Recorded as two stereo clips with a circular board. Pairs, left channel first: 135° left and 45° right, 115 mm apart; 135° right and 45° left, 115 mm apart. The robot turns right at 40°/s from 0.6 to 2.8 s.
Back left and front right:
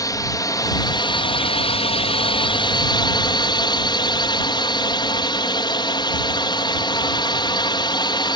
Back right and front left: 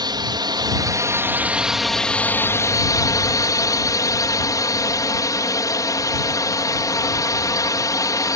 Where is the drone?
85° left; by 8.4 s 170° left.